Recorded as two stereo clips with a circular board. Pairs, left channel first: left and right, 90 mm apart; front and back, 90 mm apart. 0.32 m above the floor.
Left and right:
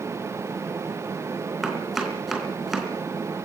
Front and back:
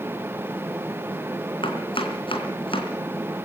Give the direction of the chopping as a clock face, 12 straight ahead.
12 o'clock.